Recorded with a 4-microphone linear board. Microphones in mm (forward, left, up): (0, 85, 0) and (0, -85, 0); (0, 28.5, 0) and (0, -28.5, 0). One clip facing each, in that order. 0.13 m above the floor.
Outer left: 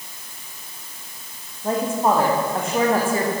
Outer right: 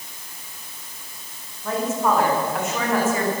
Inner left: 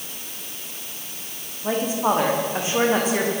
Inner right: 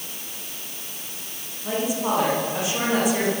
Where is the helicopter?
I don't hear a helicopter.